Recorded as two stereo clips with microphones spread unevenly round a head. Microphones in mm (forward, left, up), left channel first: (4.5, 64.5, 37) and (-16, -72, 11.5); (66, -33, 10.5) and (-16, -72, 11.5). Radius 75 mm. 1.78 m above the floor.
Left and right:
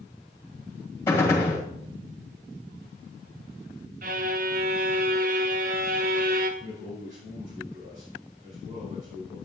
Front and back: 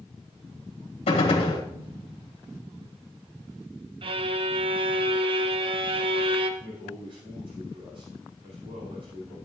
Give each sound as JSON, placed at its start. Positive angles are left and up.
{"t": 1.1, "sound": "a gunshot", "azimuth_deg": 10, "distance_m": 2.0}
{"t": 4.0, "sound": "a violin", "azimuth_deg": -130, "distance_m": 1.0}
{"t": 6.6, "sound": "a man speaking", "azimuth_deg": -135, "distance_m": 6.0}